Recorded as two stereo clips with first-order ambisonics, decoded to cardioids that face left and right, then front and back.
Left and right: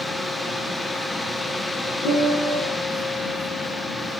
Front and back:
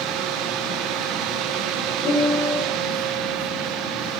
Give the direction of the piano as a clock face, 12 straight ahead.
9 o'clock.